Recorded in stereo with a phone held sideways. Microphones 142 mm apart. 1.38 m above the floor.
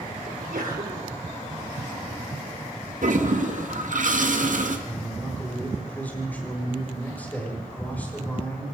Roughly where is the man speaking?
Centre.